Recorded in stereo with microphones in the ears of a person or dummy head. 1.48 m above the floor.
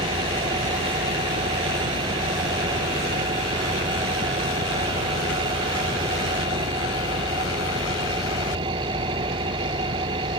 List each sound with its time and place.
0.0 s an engine running: 25° right (ahead or behind)